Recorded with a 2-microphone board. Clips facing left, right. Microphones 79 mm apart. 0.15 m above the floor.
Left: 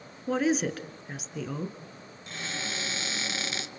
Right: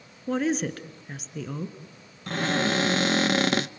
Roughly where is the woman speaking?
Centre.